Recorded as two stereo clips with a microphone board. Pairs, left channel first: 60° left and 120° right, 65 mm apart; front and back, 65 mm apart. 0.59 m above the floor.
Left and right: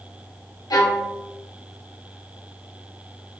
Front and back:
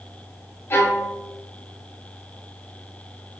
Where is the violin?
50° left, 0.6 m.